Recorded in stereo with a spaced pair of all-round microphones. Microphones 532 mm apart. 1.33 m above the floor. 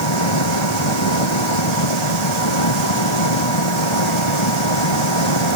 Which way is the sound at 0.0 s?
55° left (ahead or behind).